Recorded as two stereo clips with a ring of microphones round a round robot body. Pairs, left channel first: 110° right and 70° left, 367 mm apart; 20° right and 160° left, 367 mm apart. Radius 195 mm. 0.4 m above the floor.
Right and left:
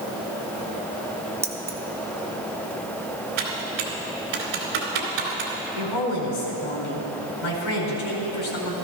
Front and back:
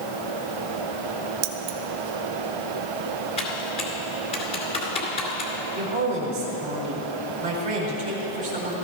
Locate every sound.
1.4 s keys jangling: 150° left, 1.0 m
3.4 s typing on a keyboard: 50° left, 2.5 m
5.8 s a woman speaking: 130° right, 4.5 m